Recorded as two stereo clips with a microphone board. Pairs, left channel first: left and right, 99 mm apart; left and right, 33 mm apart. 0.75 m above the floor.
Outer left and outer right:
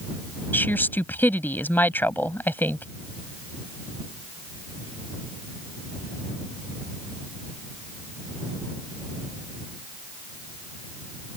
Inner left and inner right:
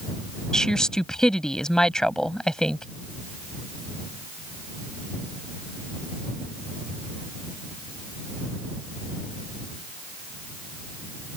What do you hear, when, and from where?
0.5 s a woman speaking: 20° left (ahead or behind)